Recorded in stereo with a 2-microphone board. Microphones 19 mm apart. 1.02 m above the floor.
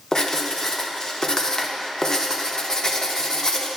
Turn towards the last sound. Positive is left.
turn(degrees=35)  # may be behind; listen again after turning